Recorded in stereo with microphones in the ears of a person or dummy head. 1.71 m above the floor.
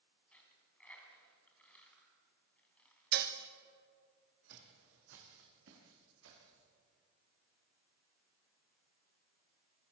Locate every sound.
0.3 s a dropped coin: 5° left (ahead or behind), 3.5 m
3.1 s dishes clattering: 55° right (ahead or behind), 1.3 m
4.5 s footsteps: 60° right (ahead or behind), 5 m; by 6.7 s 70° right (ahead or behind), 8 m